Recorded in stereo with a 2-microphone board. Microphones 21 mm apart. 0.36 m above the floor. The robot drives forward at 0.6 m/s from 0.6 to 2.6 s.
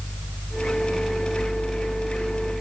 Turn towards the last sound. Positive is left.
No sound to turn to.